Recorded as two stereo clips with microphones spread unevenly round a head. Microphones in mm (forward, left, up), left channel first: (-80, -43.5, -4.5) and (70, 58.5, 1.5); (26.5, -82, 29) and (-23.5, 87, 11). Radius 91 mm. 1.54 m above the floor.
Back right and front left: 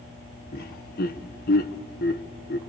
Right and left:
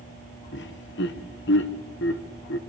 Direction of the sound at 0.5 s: 100° right.